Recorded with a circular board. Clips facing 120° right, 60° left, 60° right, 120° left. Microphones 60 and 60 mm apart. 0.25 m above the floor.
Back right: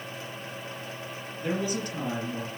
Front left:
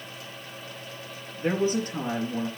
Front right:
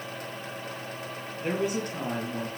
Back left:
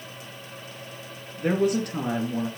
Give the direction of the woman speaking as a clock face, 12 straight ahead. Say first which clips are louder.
Front left 5 dB, back left 6 dB; 8 o'clock.